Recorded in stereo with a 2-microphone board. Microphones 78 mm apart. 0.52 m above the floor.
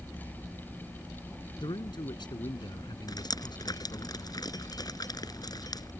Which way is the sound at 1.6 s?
80° left.